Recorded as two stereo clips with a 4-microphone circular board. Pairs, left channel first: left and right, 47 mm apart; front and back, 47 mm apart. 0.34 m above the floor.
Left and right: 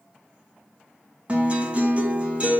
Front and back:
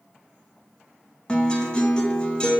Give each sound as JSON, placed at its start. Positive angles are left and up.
{"t": 1.3, "sound": "a guitar", "azimuth_deg": -55, "distance_m": 1.5}